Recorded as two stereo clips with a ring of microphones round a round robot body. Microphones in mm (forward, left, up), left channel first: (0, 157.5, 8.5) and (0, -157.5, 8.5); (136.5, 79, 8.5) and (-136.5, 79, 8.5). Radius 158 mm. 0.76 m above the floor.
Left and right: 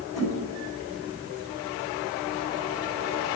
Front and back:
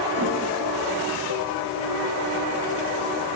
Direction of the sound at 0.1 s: 80° left.